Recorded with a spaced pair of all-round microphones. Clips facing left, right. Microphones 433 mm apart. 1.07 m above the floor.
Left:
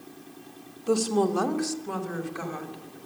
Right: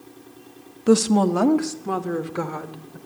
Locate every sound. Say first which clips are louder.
0.9 s a woman speaking: right 6 dB; 70° right (ahead or behind), 1.5 m; by 3.0 s 75° right (ahead or behind), 4 m